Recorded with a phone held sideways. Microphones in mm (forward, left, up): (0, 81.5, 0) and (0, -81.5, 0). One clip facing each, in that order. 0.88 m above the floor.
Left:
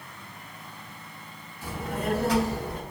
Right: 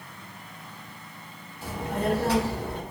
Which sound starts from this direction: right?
A child speaking, at 1.6 s.